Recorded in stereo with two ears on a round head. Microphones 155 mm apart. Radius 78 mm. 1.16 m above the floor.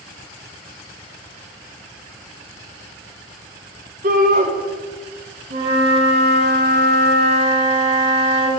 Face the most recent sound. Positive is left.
turn(degrees=-65)  # may be behind; listen again after turning